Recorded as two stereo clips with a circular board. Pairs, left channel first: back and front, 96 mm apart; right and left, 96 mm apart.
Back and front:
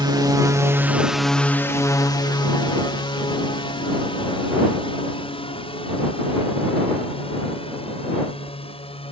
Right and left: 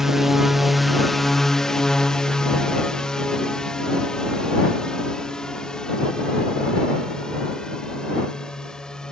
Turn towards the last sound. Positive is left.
turn(degrees=-175)